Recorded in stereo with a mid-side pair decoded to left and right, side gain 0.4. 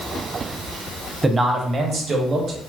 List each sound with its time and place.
1.2 s a man speaking: 25° right, 0.8 m; by 2.6 s 65° right, 1.2 m